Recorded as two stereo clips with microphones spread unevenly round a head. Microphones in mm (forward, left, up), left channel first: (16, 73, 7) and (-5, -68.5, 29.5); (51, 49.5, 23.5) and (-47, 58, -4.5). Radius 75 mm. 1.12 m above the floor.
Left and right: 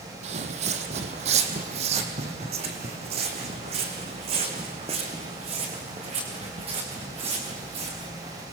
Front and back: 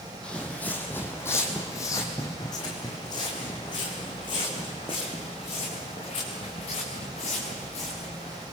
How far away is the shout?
No shout in this recording.